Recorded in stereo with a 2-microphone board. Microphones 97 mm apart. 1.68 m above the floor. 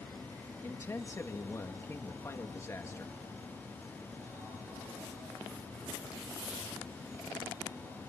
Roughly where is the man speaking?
Left.